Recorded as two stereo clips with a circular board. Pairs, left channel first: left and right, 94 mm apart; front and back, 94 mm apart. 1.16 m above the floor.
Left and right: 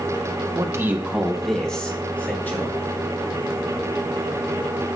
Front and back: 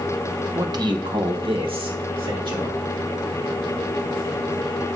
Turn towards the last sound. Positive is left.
turn(degrees=155)